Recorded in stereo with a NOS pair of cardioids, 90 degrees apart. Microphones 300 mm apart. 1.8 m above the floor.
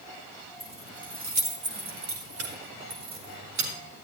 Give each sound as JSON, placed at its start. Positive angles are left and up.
{"t": 0.6, "sound": "keys jangling", "azimuth_deg": -20, "distance_m": 3.0}